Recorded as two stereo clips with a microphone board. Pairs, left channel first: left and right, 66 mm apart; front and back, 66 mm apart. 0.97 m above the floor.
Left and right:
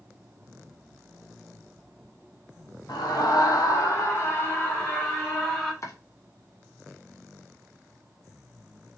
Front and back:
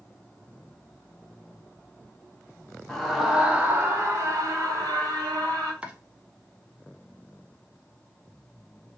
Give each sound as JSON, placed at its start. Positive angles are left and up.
{"t": 2.9, "sound": "a scream", "azimuth_deg": 80, "distance_m": 1.2}
{"t": 5.8, "sound": "chopping", "azimuth_deg": 110, "distance_m": 0.8}